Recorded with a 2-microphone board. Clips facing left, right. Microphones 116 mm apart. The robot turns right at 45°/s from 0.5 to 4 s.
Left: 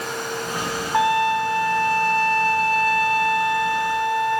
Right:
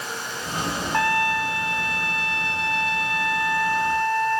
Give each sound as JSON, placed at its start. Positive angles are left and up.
{"t": 0.9, "sound": "a trumpet", "azimuth_deg": 20, "distance_m": 1.2}